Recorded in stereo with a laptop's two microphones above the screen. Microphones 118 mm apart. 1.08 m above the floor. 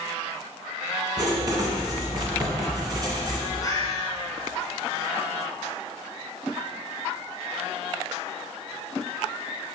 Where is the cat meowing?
30° left (ahead or behind), 1.4 m.